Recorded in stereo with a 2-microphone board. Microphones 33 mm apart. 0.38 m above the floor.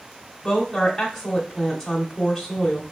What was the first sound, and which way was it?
A woman speaking, 10° left (ahead or behind).